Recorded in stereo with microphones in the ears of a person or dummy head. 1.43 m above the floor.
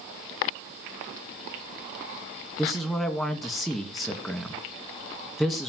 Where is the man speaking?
5° right (ahead or behind), 2.5 m.